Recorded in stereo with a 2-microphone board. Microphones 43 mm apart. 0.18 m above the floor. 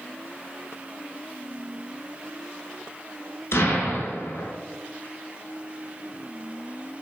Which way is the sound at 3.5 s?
70° left (ahead or behind).